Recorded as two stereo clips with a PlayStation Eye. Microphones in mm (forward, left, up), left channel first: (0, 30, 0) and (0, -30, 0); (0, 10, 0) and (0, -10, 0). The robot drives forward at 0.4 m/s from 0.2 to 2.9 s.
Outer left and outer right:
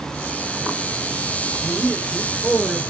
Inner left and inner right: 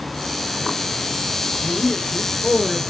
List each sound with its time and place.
1.6 s a man speaking: 5° right (ahead or behind), 2.5 m; by 2.8 s centre (ahead or behind), 2.5 m